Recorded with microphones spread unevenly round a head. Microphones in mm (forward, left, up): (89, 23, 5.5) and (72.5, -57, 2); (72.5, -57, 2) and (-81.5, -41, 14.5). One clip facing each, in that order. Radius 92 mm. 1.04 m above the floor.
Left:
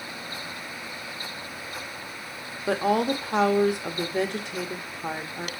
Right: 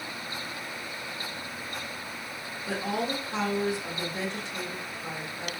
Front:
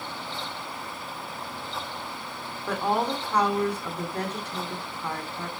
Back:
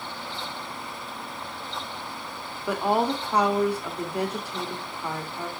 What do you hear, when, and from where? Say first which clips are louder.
2.7 s a woman speaking: left 7 dB, back 2 dB; 90° left, 1.1 m